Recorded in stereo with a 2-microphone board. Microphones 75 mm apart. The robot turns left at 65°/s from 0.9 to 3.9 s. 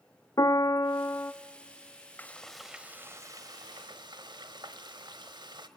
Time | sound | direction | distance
0.4 | a piano | 55° left (ahead or behind) | 0.5 m
2.2 | frying | 25° left | 1.0 m